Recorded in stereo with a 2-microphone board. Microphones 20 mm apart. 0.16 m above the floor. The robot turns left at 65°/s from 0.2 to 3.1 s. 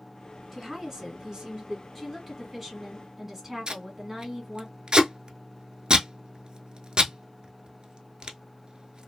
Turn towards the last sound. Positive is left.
turn(degrees=-50)  # may be behind; listen again after turning